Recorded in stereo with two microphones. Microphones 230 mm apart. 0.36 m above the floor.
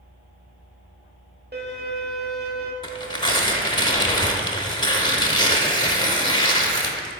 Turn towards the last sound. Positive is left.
turn(degrees=20)  # may be behind; listen again after turning